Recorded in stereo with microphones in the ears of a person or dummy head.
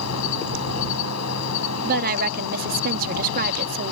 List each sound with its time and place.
0.0 s an insect: 85° left
1.8 s a woman speaking: 50° right (ahead or behind)